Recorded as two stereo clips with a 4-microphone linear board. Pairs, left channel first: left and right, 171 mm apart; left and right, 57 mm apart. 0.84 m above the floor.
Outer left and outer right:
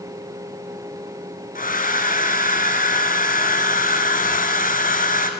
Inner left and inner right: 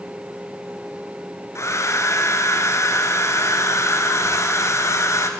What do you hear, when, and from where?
1.6 s a hair dryer: 55° left (ahead or behind), 2.0 m